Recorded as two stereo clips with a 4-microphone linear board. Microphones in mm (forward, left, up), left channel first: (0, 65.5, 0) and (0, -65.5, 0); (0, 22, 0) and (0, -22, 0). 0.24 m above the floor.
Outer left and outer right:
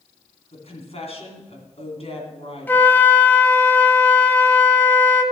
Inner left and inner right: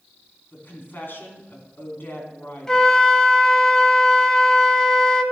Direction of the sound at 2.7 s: 15° left (ahead or behind).